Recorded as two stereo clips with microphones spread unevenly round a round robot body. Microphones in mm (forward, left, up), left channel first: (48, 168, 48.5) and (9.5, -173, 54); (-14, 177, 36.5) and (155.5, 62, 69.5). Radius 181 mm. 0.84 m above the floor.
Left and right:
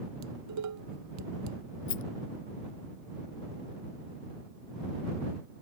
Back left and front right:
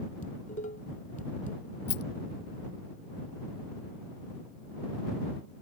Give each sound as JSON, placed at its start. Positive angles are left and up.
{"t": 0.2, "sound": "dishes clattering", "azimuth_deg": -145}
{"t": 1.9, "sound": "a rattle", "azimuth_deg": 145}